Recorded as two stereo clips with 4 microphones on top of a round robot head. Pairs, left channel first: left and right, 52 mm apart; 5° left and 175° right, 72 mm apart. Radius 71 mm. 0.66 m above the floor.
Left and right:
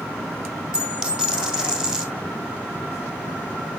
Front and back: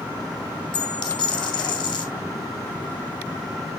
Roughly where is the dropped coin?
Ahead.